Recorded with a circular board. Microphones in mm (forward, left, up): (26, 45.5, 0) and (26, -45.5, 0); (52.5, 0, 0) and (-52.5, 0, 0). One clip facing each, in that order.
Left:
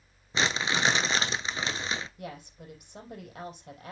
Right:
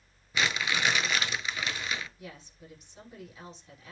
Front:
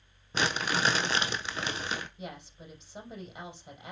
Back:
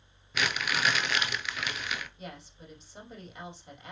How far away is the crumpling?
About 0.7 m.